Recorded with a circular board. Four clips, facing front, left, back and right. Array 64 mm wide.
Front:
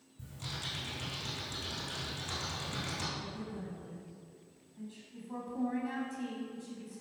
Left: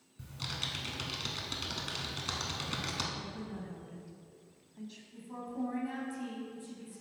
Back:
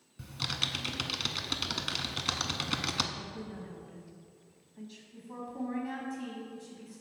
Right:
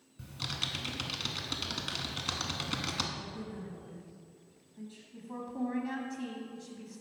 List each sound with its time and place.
0.2 s typing on a keyboard: 165° right, 0.6 m
3.2 s a woman speaking: 120° left, 1.1 m
5.1 s a woman speaking: 90° right, 1.0 m